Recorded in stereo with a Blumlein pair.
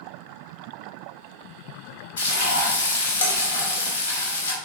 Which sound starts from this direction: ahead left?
Frying, at 2.2 s.